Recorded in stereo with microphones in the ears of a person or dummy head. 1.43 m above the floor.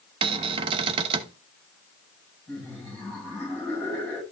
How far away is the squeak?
I don't hear a squeak.